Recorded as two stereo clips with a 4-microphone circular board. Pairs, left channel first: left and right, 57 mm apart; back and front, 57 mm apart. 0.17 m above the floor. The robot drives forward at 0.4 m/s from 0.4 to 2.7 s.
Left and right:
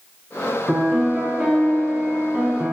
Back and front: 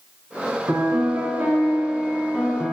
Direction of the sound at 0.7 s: 10° right.